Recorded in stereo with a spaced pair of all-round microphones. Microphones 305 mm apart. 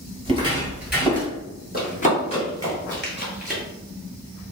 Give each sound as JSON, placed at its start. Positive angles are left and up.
{"t": 0.2, "sound": "footsteps", "side_deg": -15, "distance_m": 1.5}
{"t": 1.7, "sound": "running footsteps", "side_deg": 30, "distance_m": 1.8}